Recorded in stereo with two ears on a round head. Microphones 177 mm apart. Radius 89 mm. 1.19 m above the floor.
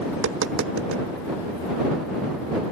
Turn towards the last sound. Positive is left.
turn(degrees=-70)  # may be behind; listen again after turning